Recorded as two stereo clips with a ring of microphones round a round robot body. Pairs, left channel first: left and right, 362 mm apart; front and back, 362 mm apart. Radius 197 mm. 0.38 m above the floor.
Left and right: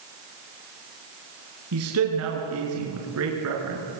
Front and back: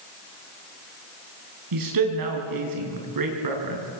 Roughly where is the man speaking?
Behind right.